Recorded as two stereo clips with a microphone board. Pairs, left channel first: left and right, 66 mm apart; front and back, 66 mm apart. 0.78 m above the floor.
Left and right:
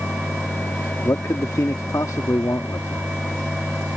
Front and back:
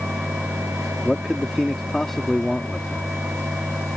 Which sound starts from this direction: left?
A man speaking, at 1.0 s.